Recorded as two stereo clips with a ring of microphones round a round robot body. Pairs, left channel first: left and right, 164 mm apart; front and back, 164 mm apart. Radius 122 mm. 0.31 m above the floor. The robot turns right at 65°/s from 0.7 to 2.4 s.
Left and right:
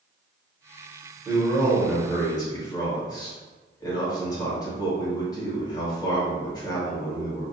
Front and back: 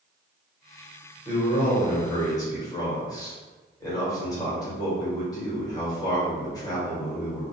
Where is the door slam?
No door slam in this recording.